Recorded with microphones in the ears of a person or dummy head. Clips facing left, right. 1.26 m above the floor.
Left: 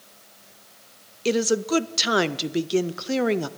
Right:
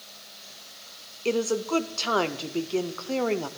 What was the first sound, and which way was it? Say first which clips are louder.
A woman speaking: left 3 dB; 20° left (ahead or behind).